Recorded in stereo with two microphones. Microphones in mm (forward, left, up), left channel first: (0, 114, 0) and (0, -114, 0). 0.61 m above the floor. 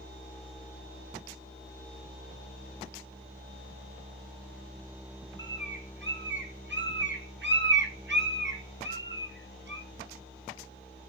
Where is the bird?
55° right (ahead or behind), 1.1 m.